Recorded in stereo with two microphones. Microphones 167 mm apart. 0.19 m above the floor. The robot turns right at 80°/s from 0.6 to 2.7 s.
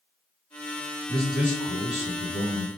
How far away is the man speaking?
About 2.5 m.